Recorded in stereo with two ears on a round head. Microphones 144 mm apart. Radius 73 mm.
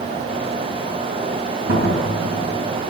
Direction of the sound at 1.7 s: 60° right (ahead or behind).